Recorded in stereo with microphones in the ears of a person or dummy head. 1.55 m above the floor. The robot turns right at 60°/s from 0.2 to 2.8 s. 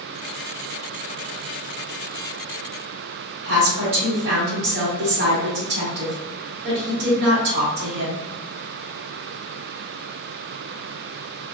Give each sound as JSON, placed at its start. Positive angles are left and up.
{"t": 3.4, "sound": "a woman speaking", "side_deg": -60, "distance_m": 1.8}